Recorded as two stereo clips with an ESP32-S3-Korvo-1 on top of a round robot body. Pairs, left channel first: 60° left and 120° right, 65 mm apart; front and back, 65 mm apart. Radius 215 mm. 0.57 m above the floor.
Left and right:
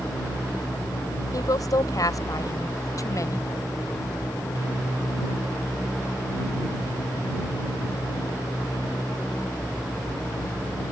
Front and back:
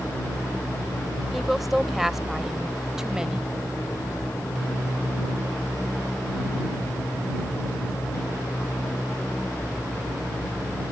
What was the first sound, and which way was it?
A woman speaking, 90° left.